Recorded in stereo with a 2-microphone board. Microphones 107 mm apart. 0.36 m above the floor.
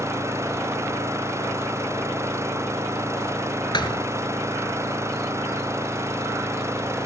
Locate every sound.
0.0 s an engine running: 25° right (ahead or behind)
3.7 s a thud: 45° left (ahead or behind)